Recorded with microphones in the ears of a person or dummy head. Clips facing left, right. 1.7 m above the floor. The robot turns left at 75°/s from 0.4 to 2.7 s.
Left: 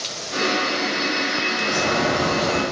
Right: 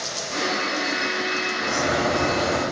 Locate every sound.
1.6 s a bird: straight behind, 1.5 m; by 2.6 s 105° left, 1.5 m